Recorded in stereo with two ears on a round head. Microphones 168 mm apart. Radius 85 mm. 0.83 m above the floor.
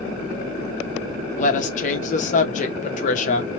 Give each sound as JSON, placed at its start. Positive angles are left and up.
{"t": 1.4, "sound": "a woman speaking", "side_deg": 40, "distance_m": 0.8}